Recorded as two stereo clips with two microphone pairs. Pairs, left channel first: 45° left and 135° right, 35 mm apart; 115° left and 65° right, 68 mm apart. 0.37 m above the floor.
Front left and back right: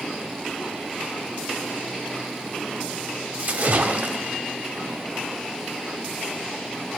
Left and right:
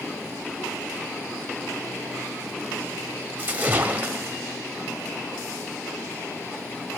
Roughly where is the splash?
Behind right.